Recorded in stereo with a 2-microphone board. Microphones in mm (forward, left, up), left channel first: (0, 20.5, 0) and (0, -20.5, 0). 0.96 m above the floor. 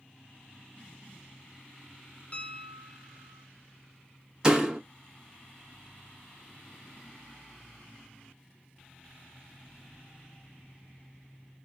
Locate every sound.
2.3 s a piano: 30° left (ahead or behind), 1.5 m
4.4 s a door slam: 20° right (ahead or behind), 1.2 m